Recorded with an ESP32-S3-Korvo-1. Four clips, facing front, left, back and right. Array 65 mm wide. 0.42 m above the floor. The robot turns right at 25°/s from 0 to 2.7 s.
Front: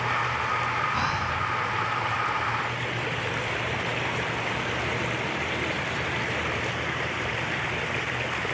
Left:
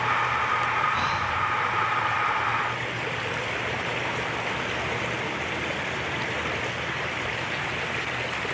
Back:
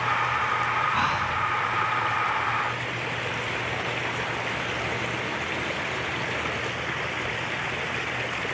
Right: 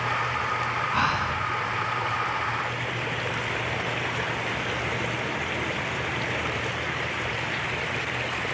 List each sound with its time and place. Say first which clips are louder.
0.9 s breathing: right 1 dB, back 2 dB; 110° right, 3.5 m; by 1.4 s 100° right, 3.5 m